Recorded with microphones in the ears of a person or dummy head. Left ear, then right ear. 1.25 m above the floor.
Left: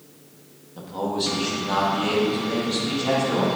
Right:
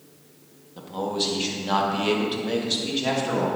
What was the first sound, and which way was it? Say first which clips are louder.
A man speaking: even; 5° right (ahead or behind).